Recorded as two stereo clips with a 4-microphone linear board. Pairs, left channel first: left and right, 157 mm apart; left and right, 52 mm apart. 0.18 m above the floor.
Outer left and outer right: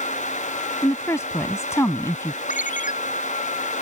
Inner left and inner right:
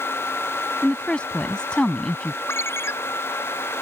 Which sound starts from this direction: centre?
A woman speaking, at 0.8 s.